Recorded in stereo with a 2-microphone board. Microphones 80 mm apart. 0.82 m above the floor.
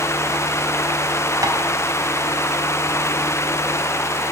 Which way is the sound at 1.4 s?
45° right (ahead or behind).